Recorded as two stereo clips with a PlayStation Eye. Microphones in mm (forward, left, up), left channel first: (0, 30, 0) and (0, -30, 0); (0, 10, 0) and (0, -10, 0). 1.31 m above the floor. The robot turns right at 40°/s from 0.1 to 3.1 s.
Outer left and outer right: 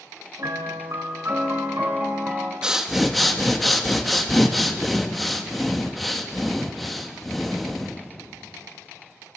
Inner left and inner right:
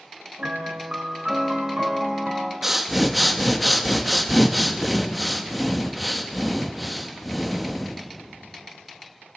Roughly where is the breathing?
Centre.